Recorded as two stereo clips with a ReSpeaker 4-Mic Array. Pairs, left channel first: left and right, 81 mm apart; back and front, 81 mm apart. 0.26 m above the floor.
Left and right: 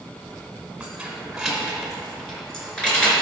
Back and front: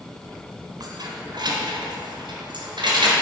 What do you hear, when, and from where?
0.8 s keys jangling: 15° right, 1.5 m; by 3.1 s 15° left, 2.5 m